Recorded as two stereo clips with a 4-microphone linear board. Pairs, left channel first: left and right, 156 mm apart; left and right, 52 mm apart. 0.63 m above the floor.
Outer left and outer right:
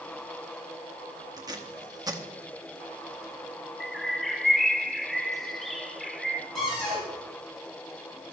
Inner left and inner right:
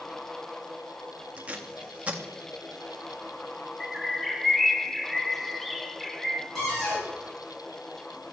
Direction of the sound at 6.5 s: Centre (ahead or behind).